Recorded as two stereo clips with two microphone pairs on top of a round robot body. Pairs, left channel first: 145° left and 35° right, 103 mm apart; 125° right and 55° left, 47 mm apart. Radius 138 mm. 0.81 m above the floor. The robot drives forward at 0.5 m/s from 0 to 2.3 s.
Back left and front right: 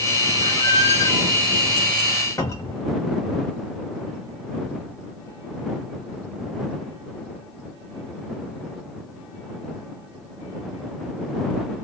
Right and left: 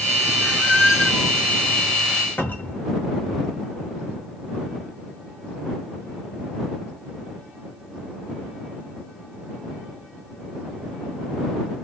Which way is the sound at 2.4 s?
160° right.